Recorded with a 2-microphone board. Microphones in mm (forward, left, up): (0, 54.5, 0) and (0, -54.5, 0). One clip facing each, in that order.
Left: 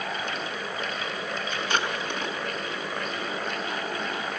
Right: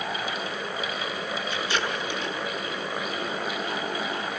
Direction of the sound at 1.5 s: 55° left (ahead or behind).